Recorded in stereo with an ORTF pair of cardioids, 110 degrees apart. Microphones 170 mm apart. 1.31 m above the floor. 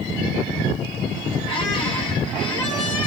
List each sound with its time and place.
1.5 s a squeak: 30° left, 1.5 m